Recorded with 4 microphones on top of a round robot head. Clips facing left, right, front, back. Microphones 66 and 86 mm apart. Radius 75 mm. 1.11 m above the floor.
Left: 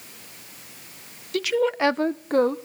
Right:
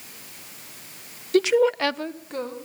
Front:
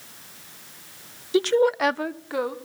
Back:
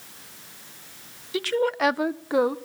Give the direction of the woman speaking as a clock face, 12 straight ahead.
2 o'clock.